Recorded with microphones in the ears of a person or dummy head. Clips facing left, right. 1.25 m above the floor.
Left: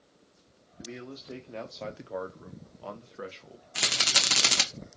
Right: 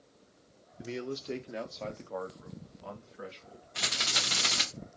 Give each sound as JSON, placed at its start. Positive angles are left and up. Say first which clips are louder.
{"t": 0.8, "sound": "a man speaking", "louder": "right 5 dB", "side_deg": -45, "distance_m": 0.7}
{"t": 3.8, "sound": "a rattle", "louder": "left 3 dB", "side_deg": 55, "distance_m": 1.0}